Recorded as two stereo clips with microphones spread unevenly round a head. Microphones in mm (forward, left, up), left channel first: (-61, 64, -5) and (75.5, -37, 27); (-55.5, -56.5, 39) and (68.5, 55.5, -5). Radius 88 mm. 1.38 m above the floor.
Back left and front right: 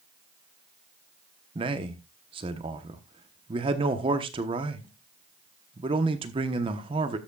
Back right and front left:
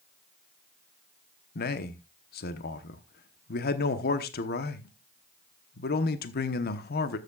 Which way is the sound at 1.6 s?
100° right.